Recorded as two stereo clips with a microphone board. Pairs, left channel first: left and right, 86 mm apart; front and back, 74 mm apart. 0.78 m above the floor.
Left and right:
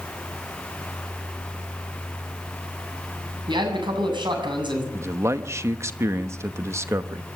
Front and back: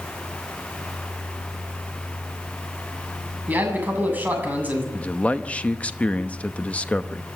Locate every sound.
3.5 s a man speaking: 115° right, 7.5 m
4.9 s a man speaking: 60° right, 1.0 m